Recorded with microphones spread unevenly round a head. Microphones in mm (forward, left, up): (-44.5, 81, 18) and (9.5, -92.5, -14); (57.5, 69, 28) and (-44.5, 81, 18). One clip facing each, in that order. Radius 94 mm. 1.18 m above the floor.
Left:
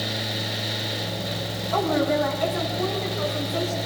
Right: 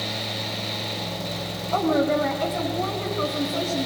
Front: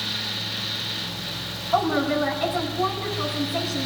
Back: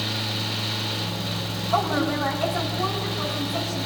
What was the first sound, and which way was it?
A woman speaking, 120° right.